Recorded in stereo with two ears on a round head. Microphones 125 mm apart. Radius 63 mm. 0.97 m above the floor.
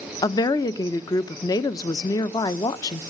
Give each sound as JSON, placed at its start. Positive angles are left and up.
{"t": 0.2, "sound": "a woman speaking", "side_deg": 25, "distance_m": 0.7}